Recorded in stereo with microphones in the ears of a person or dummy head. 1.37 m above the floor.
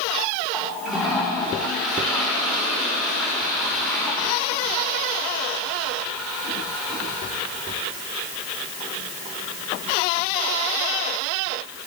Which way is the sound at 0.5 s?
Centre (ahead or behind).